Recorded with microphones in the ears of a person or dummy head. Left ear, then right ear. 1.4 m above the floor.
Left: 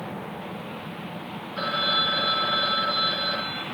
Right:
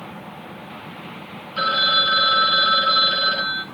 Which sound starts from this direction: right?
A phone ringing, at 1.6 s.